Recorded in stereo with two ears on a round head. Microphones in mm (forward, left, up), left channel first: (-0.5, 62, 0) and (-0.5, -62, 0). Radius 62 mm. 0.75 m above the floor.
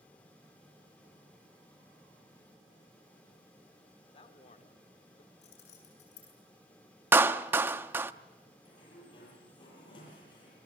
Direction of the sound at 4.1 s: 40° left (ahead or behind).